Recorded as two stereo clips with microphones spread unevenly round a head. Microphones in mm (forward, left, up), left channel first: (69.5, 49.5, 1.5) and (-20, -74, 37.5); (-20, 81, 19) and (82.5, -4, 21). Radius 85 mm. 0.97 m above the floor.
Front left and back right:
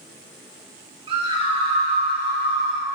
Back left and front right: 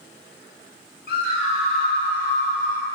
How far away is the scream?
About 5.5 m.